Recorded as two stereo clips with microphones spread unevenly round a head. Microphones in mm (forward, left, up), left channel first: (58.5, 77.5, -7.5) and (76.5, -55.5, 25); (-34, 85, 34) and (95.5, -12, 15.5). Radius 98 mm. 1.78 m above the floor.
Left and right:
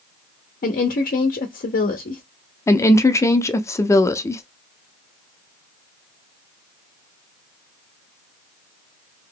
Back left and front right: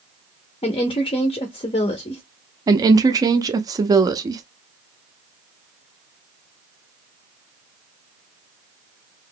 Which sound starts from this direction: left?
A woman speaking, at 0.6 s.